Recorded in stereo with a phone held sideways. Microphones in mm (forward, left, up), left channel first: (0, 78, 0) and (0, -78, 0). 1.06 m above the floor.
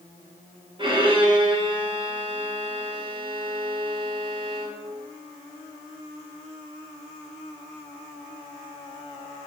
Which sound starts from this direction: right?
A violin, at 0.8 s.